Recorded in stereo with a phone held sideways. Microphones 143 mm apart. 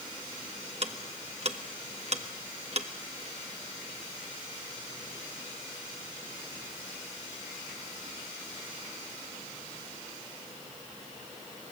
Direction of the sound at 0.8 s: 50° right (ahead or behind).